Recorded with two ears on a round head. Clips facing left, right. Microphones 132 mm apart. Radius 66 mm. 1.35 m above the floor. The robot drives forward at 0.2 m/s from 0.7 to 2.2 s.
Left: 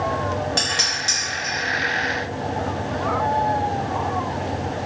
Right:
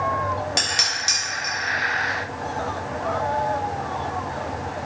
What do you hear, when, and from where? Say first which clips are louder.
0.6 s dishes clattering: left 2 dB; 15° right (ahead or behind), 0.9 m